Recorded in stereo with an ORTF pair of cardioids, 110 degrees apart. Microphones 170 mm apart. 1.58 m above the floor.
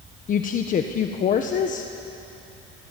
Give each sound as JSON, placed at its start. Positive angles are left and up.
{"t": 0.3, "sound": "a woman speaking", "azimuth_deg": 50, "distance_m": 1.3}